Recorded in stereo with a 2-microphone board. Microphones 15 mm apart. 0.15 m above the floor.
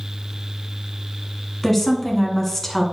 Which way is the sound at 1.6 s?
20° left (ahead or behind).